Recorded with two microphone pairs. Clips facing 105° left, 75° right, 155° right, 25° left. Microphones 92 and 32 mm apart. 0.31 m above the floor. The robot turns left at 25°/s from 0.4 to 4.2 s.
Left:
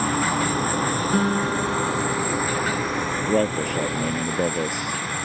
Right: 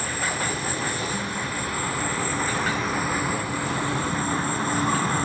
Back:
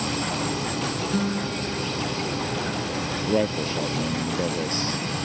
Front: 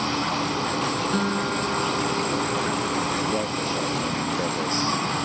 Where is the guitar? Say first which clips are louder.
Left 8 dB, front 2 dB; 85° left; by 2.9 s 40° left.